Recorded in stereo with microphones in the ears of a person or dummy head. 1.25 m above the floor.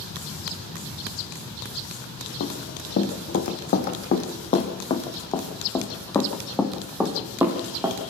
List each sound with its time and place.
2.4 s running footsteps: 50° left (ahead or behind), 3.5 m; by 8.0 s 20° right (ahead or behind), 2.5 m